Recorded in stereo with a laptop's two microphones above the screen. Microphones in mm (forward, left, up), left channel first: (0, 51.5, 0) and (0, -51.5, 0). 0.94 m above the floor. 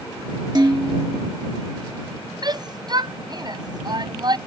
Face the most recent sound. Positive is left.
turn(degrees=-45)  # may be behind; listen again after turning